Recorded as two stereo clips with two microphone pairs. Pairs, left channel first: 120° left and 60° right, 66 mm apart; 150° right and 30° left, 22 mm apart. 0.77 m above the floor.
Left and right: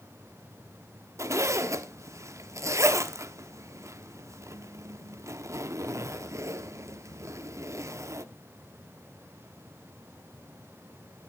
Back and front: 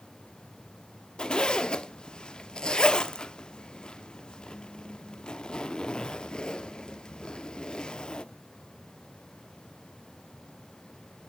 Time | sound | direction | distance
1.2 | a zipper | 105° right | 0.7 m